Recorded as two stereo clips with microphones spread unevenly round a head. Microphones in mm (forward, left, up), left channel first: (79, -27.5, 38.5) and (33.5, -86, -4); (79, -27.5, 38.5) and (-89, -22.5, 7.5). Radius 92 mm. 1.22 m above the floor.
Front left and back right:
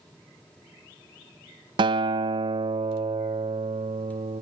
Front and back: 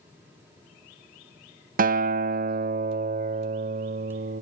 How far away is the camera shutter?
I don't hear a camera shutter.